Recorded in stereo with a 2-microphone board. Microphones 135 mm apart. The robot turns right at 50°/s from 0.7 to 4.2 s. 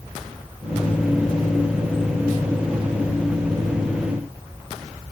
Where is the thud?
I don't hear a thud.